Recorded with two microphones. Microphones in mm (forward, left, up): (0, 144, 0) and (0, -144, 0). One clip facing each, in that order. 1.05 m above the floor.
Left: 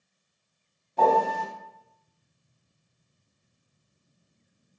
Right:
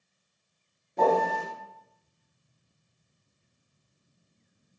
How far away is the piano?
About 1.1 m.